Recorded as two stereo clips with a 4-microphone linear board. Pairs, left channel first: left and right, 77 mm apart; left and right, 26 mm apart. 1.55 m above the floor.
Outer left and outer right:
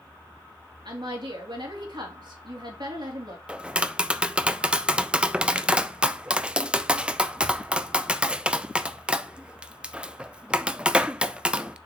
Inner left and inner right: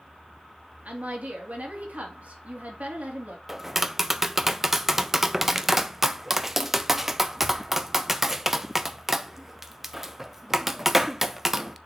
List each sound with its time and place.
0.8 s a woman speaking: 65° right (ahead or behind), 3 m
3.5 s tapping: 15° right (ahead or behind), 0.5 m